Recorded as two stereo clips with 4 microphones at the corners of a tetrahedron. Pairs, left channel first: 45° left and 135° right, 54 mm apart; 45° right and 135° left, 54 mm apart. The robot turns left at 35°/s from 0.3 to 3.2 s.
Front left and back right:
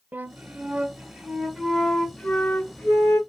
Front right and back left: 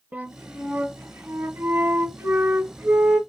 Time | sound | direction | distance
0.1 | a flute | 175° right | 0.6 m